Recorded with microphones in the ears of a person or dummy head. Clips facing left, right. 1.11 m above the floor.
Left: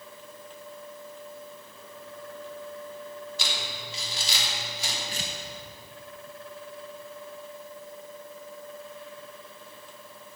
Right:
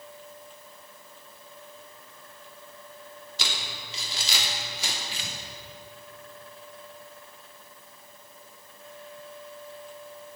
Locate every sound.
3.4 s crumpling: 60° right (ahead or behind), 3 m
5.1 s tearing paper: 30° left (ahead or behind), 1.1 m